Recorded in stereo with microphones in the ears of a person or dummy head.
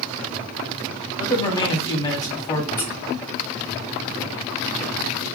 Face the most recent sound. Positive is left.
turn(degrees=10)  # may be behind; listen again after turning